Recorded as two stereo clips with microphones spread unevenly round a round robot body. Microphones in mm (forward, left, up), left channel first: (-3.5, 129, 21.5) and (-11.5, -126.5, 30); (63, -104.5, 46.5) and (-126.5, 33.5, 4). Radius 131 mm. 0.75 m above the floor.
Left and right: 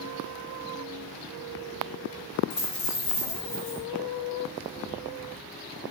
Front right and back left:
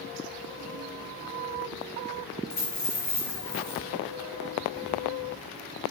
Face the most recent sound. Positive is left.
turn(degrees=25)